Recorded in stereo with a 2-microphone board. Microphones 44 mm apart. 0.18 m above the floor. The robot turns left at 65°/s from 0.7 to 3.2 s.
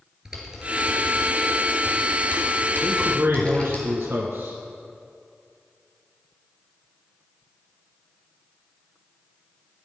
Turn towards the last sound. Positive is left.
turn(degrees=-45)  # may be behind; listen again after turning